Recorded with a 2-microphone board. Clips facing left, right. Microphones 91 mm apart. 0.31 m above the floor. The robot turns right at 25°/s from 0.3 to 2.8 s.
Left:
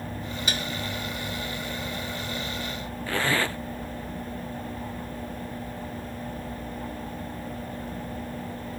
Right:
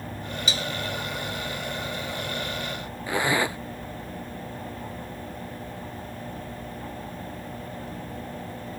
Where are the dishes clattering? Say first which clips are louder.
Even; 55° left (ahead or behind); by 0.7 s 60° left (ahead or behind).